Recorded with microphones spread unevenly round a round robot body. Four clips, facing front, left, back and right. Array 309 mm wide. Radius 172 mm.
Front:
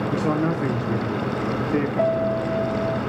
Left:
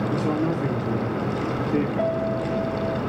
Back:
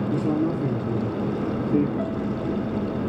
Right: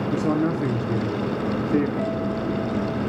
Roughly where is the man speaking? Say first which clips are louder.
Right 4 dB, even; behind right.